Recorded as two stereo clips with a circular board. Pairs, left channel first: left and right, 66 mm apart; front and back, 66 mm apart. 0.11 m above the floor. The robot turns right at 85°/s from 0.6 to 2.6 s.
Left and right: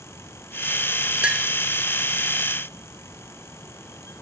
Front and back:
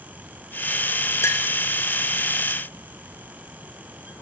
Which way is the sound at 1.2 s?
25° right.